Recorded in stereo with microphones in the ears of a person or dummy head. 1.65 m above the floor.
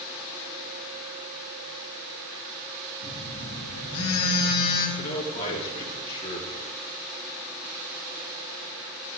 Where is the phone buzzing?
35° left (ahead or behind), 4 m.